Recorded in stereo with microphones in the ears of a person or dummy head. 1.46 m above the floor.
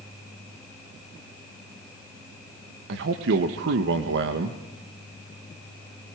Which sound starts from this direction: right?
A man speaking, at 2.9 s.